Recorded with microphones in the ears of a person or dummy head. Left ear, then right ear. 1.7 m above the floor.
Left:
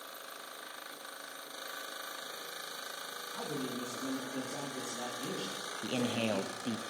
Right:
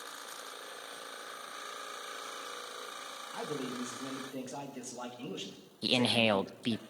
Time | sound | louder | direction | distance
3.3 | a man speaking | right 1 dB | 50° right (ahead or behind) | 3 m
5.8 | a man speaking | right 7 dB | 65° right (ahead or behind) | 0.5 m